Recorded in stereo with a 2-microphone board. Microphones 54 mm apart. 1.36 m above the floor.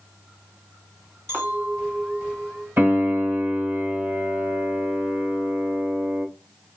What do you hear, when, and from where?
1.3 s a clink: 55° right (ahead or behind), 1.7 m
2.8 s a piano: 45° right (ahead or behind), 1.4 m